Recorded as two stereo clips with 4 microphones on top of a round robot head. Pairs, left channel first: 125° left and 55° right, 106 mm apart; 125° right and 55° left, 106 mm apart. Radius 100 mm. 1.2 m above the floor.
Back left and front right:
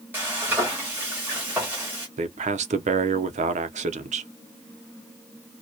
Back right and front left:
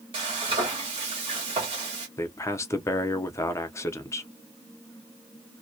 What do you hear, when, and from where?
0.1 s frying: 15° left, 0.9 m
2.2 s a man speaking: 60° right, 0.6 m